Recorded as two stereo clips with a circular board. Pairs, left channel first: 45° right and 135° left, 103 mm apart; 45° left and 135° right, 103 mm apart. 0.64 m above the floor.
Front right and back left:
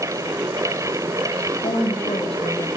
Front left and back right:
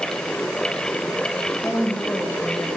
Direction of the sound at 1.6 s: 20° right.